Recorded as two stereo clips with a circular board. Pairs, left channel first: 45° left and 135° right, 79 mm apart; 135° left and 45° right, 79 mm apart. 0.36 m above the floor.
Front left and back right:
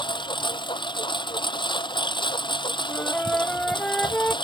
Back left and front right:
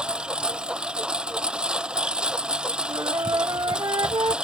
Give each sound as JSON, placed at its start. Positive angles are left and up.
{"t": 0.0, "sound": "a lawn mower", "azimuth_deg": 35}
{"t": 2.9, "sound": "a flute", "azimuth_deg": -30}